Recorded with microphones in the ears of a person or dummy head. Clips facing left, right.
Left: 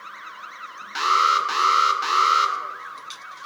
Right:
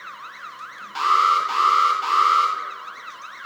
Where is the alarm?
20° left (ahead or behind), 1.2 m.